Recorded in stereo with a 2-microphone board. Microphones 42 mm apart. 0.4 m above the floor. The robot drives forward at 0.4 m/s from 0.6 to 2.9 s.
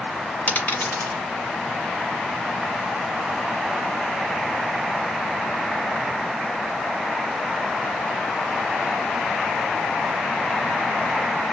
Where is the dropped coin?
45° left (ahead or behind), 1.4 m; by 1.2 s 50° left (ahead or behind), 1.2 m.